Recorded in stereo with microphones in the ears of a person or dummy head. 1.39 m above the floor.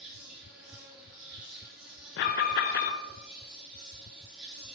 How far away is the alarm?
About 0.7 m.